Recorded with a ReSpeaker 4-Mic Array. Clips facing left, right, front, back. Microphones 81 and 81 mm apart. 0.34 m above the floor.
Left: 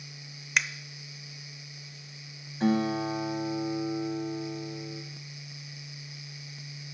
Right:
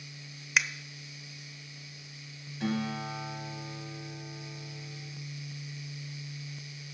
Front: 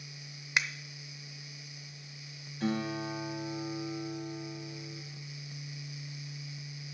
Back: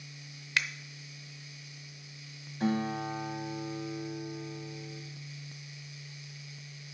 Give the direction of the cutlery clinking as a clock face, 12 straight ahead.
I don't hear cutlery clinking.